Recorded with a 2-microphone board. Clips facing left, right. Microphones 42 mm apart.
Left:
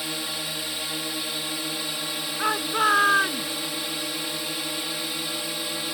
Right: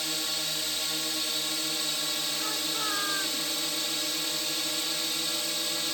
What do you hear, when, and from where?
0.0 s a drone: 10° left (ahead or behind)
2.4 s a shout: 50° left (ahead or behind)